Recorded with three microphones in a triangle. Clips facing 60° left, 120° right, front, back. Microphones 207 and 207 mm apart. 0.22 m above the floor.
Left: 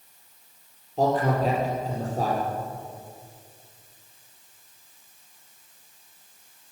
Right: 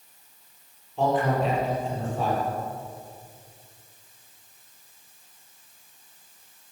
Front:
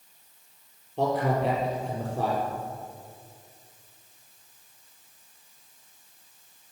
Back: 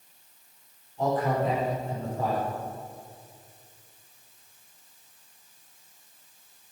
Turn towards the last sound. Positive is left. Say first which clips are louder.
# left 1 dB, front 1 dB
turn(degrees=10)